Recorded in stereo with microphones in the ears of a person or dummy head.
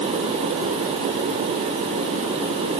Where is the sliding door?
No sliding door in this recording.